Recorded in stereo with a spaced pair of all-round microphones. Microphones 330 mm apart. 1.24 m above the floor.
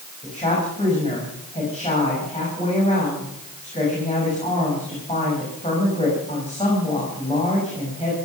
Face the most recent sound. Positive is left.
turn(degrees=20)  # may be behind; listen again after turning